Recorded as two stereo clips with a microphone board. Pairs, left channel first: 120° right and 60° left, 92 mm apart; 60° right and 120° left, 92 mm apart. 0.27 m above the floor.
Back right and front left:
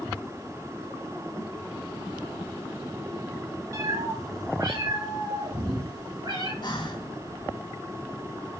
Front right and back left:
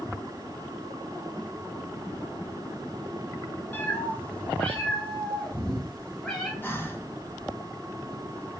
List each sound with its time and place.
3.7 s a cat meowing: 5° left, 1.7 m; by 6.5 s 20° left, 3.5 m
6.6 s breathing: 125° right, 1.7 m